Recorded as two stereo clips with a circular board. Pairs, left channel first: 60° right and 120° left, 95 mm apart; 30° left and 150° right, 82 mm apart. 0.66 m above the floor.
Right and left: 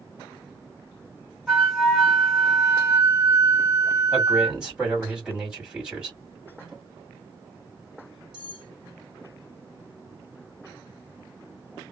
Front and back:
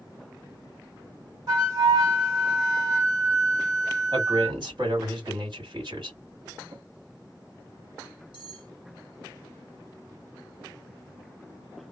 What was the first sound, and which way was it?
A flute, 145° right.